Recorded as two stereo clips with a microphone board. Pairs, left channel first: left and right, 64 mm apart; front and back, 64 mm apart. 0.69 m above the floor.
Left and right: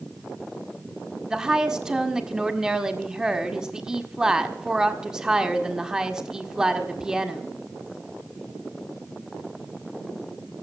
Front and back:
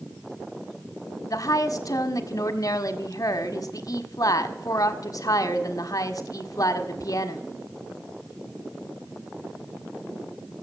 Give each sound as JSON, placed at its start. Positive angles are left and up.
{"t": 1.3, "sound": "a woman speaking", "azimuth_deg": -10, "distance_m": 1.5}